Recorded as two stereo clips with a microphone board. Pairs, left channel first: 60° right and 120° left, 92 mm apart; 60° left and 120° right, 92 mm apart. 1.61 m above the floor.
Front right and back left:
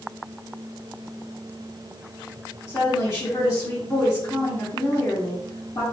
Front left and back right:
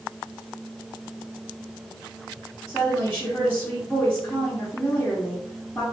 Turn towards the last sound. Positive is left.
turn(degrees=-15)